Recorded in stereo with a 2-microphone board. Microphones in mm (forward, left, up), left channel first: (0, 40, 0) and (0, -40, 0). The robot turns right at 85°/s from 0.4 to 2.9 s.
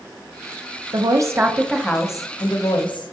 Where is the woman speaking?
65° right, 0.7 m; by 3.1 s 105° left, 0.7 m.